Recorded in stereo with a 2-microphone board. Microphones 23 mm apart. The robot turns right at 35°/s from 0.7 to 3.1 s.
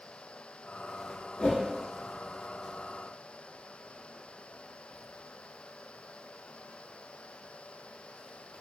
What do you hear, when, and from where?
1.4 s a whoosh: 50° left (ahead or behind), 2.5 m; by 1.6 s 60° left (ahead or behind), 2.5 m